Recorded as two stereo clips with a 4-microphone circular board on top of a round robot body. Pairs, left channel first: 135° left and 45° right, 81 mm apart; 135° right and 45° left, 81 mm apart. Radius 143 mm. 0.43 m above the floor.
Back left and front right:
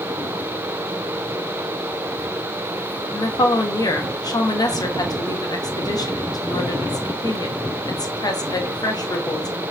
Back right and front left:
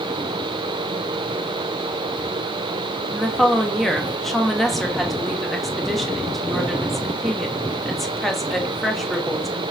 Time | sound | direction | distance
3.1 | a woman speaking | 140° left | 1.7 m